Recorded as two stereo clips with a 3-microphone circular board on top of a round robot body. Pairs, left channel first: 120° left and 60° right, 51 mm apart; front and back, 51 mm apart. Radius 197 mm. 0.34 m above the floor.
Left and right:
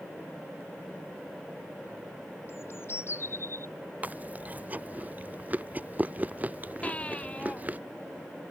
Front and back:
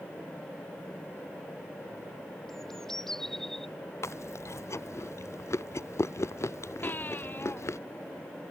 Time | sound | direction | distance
2.5 | a bird | 85° left | ?
4.0 | chewing | 5° right | ?
6.8 | a baby crying | 55° left | ?